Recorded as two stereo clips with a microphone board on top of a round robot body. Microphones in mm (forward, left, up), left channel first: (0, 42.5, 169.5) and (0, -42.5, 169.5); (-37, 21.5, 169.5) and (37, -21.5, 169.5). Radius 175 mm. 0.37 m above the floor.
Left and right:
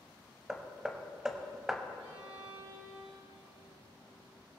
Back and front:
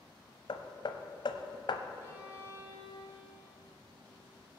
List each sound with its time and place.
0.5 s hammering: 175° right, 0.9 m
2.0 s a violin: 95° right, 4.5 m